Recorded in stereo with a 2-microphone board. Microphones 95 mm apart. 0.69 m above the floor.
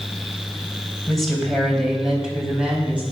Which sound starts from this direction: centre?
A woman speaking, at 1.1 s.